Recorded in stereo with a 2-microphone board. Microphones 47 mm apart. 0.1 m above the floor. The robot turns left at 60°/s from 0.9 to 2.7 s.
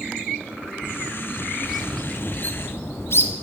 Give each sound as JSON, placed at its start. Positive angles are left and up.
{"t": 1.6, "sound": "a bird", "side_deg": -10, "distance_m": 0.8}